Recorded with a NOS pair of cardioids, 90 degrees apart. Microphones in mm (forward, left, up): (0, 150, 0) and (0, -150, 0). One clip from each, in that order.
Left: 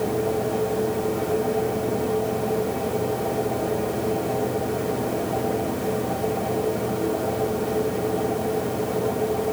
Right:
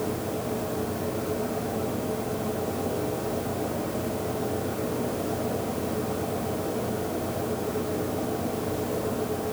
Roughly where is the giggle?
I don't hear a giggle.